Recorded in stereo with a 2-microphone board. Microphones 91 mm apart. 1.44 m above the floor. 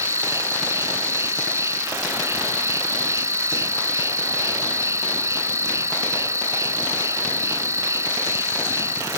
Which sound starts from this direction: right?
An insect, at 0.0 s.